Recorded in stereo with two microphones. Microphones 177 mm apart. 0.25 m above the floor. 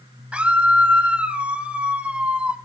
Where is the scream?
5° right (ahead or behind), 1.1 m.